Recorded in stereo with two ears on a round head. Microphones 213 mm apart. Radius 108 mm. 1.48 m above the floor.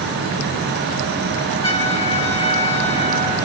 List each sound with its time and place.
1.6 s a trumpet: 25° left (ahead or behind), 2 m